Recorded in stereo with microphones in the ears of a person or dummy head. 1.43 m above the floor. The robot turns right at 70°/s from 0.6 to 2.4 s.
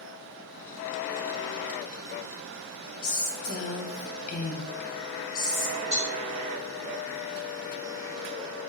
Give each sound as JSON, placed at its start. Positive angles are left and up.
{"t": 3.0, "sound": "a woman speaking", "side_deg": 45, "distance_m": 0.5}
{"t": 5.9, "sound": "a cowbell", "side_deg": -50, "distance_m": 1.1}